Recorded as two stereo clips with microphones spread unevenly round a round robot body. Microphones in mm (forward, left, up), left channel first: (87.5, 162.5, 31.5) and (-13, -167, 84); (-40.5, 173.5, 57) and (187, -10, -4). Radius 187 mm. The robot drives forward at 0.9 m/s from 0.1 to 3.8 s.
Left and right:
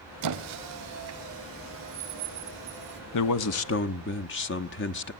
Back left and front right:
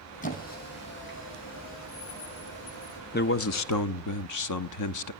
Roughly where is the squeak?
Behind right.